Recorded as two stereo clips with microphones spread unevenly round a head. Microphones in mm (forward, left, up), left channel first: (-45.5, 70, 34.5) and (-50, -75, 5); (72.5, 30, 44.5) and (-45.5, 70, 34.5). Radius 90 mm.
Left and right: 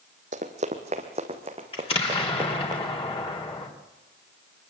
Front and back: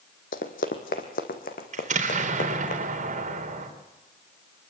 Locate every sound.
0.3 s running footsteps: 35° right, 2 m; by 2.7 s 20° right, 4 m
1.7 s an explosion: 140° left, 3.5 m